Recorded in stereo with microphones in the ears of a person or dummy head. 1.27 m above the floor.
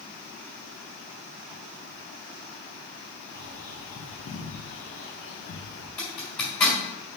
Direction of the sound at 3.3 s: 70° left (ahead or behind).